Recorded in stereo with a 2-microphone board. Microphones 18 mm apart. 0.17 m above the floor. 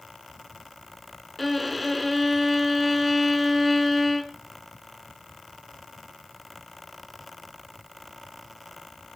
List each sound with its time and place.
1.4 s a violin: 5° right (ahead or behind), 1.9 m